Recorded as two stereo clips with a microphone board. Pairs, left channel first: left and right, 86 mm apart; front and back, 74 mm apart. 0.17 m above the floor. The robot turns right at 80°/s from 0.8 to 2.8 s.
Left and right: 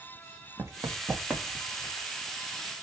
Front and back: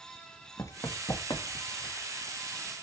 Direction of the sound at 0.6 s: 35° right.